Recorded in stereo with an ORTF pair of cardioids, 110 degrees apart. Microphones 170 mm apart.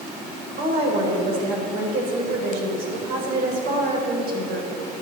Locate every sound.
0.6 s a woman speaking: 65° right, 4.5 m